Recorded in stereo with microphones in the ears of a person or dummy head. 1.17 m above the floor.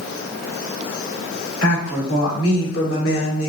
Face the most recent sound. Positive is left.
turn(degrees=45)  # may be behind; listen again after turning